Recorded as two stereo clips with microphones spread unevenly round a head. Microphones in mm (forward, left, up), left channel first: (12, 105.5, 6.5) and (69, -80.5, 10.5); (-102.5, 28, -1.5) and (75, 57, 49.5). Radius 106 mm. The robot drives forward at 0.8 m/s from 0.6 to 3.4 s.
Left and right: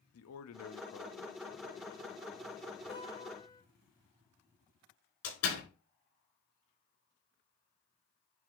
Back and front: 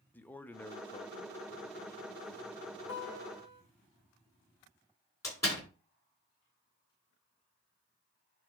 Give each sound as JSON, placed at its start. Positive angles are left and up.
{"t": 0.1, "sound": "a man speaking", "azimuth_deg": 110, "distance_m": 0.8}
{"t": 2.9, "sound": "a guitar", "azimuth_deg": 175, "distance_m": 2.5}
{"t": 5.2, "sound": "a door slam", "azimuth_deg": 115, "distance_m": 5.5}